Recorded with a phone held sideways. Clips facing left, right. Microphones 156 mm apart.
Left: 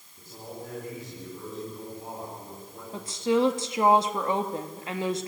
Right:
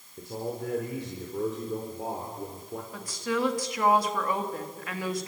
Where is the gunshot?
No gunshot in this recording.